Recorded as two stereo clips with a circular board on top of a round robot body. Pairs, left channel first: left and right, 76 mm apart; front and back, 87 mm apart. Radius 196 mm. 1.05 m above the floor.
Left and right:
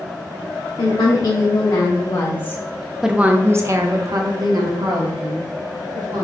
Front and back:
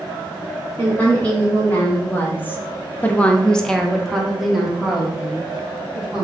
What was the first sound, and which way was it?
A woman speaking, 70° left.